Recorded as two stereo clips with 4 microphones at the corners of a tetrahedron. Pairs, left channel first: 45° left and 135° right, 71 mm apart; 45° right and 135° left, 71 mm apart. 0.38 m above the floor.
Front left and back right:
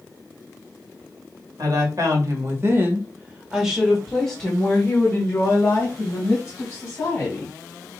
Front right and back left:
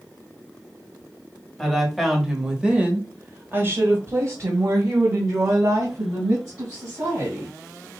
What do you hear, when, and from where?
1.6 s a woman speaking: 130° right, 1.6 m; by 7.5 s 95° left, 3 m